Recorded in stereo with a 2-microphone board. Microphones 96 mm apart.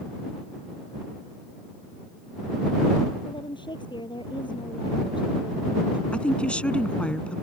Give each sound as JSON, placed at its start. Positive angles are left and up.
{"t": 3.2, "sound": "a woman speaking", "side_deg": 55}
{"t": 6.1, "sound": "a woman speaking", "side_deg": 10}